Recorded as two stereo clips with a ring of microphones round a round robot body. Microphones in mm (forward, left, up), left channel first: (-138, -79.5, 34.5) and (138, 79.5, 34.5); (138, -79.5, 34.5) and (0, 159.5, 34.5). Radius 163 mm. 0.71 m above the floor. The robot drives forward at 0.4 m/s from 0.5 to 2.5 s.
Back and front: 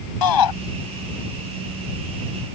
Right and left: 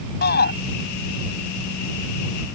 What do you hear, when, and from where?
0.2 s a shout: 125° right